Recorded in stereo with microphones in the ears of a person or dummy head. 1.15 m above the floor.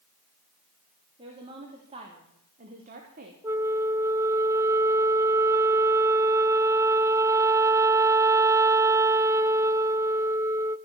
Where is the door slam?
I don't hear a door slam.